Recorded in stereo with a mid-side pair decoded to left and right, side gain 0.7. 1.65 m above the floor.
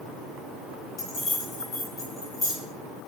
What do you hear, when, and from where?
1.0 s keys jangling: 40° left, 1.5 m